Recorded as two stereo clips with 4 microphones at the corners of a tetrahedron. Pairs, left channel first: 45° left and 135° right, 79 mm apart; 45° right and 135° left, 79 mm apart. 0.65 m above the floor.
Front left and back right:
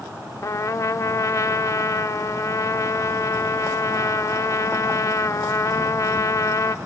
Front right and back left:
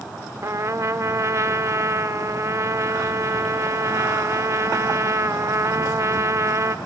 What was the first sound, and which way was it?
A trumpet, 90° left.